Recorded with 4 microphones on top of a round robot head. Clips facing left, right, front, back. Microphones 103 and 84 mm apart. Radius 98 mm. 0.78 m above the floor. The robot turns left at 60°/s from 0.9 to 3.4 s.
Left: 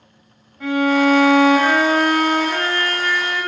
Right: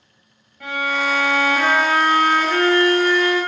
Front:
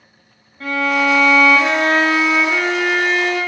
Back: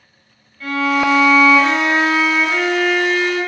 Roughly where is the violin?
Ahead.